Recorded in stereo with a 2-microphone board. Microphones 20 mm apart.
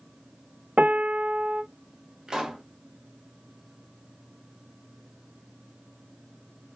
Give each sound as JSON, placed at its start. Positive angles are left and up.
{"t": 0.8, "sound": "a piano", "side_deg": -75, "distance_m": 0.5}
{"t": 2.3, "sound": "a pop", "side_deg": -40, "distance_m": 0.9}